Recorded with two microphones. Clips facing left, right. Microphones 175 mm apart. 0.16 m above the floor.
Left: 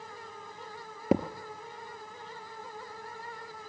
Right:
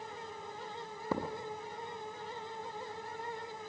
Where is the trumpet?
No trumpet in this recording.